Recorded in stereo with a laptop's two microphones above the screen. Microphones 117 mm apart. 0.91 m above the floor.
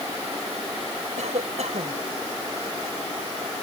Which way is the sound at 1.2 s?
80° right.